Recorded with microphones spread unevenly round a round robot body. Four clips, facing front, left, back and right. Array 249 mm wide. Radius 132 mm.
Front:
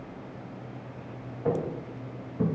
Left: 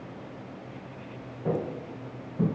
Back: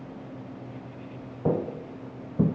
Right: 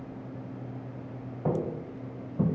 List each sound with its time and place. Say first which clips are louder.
1.4 s footsteps: even, back 2 dB; 165° right, 1.7 m; by 2.5 s straight behind, 2 m